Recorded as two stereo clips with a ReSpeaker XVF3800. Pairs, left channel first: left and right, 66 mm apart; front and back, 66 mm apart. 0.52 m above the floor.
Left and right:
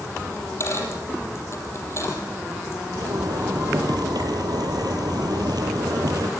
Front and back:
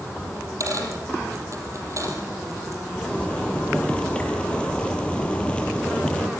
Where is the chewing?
No chewing in this recording.